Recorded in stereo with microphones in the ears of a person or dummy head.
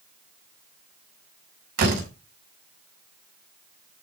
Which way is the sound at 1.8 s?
55° right (ahead or behind).